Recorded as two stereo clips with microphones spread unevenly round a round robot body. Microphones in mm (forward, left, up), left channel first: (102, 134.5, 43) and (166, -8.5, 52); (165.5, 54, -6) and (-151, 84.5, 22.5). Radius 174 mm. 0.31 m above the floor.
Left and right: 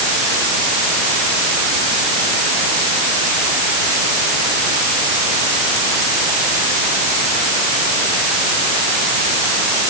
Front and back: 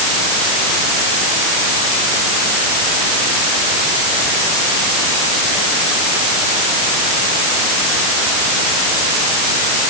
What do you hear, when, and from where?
Only background noise.